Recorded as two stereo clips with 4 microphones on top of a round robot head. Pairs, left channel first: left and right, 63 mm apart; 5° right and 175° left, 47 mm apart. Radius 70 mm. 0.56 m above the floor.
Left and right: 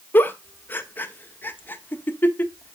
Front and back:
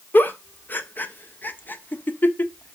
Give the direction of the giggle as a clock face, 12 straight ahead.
11 o'clock.